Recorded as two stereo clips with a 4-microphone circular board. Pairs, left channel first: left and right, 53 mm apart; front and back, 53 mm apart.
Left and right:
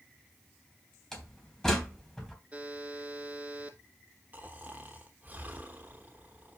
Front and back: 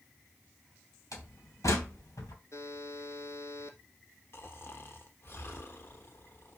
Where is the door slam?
10° left, 2.5 m.